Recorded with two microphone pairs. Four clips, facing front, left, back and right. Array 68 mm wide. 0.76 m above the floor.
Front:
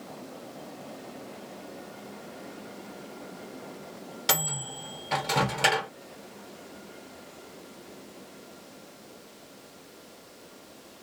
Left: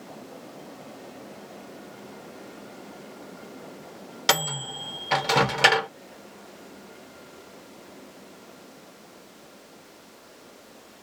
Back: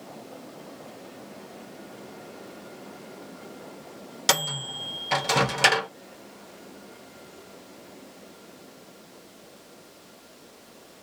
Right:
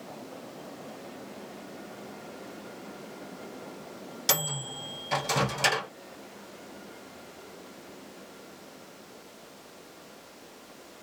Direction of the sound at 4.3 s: 105° left.